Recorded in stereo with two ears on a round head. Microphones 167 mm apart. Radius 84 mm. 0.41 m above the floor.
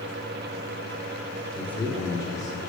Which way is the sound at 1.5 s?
5° left (ahead or behind).